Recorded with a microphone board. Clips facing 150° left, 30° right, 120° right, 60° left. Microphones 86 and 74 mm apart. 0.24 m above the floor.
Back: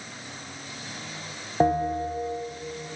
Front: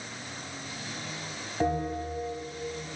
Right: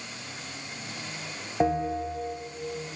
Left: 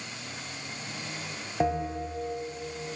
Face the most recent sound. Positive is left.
turn(degrees=165)